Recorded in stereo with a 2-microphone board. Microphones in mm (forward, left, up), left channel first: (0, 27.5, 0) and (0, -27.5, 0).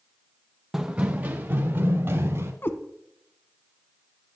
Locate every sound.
0.7 s running footsteps: 10° right (ahead or behind), 0.7 m; by 2.5 s 50° right (ahead or behind), 2.5 m
2.6 s a cat meowing: 40° left (ahead or behind), 0.9 m